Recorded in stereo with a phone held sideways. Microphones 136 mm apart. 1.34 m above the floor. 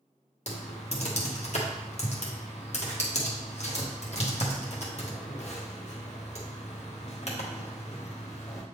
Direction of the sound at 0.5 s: 55° left (ahead or behind).